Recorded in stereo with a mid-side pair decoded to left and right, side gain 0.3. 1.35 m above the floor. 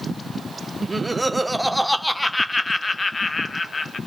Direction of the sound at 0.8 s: 30° right.